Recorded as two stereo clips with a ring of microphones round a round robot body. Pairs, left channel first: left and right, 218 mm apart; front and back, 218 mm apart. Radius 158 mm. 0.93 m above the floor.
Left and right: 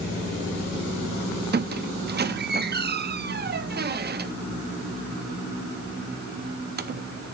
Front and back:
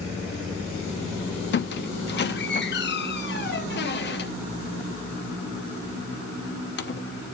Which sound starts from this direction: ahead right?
A squeak, at 1.5 s.